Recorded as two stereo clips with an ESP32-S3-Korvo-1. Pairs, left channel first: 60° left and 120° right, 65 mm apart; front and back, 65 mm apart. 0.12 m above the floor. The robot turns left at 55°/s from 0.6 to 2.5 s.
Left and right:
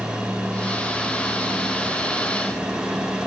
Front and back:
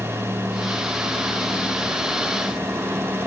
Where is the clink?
I don't hear a clink.